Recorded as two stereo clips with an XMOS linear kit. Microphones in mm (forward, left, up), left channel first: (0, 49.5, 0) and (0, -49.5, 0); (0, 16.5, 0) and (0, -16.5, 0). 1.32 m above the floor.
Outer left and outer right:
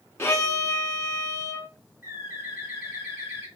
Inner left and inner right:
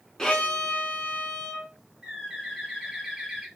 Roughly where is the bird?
Right.